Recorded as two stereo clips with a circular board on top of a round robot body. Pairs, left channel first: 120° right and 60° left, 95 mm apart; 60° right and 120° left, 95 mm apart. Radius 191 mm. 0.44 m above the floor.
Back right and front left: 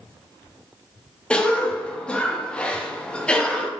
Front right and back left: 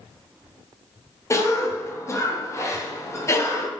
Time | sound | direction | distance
1.3 | a cough | 50° right | 0.9 m